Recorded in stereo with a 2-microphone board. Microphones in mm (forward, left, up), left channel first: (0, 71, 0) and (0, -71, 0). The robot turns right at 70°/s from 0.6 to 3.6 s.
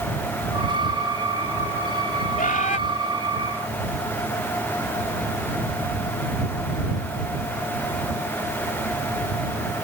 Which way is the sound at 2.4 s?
80° left.